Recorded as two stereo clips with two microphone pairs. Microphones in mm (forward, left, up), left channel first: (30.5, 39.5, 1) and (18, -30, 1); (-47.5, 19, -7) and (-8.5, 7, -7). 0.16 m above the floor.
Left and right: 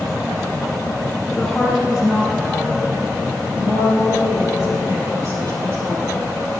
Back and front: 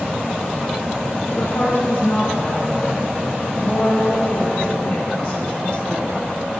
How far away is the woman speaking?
About 2 m.